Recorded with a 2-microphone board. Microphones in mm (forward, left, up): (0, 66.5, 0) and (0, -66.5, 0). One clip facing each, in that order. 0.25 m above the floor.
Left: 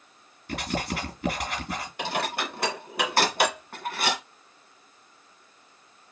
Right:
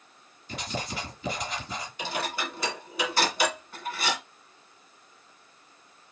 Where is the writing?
60° left (ahead or behind), 3.5 m.